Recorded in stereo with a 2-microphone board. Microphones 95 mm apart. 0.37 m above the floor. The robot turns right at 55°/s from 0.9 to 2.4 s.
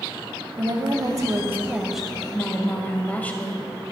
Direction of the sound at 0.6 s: 60° right.